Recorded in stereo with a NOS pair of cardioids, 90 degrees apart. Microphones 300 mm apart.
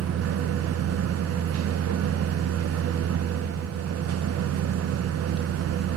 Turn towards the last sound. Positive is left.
turn(degrees=-55)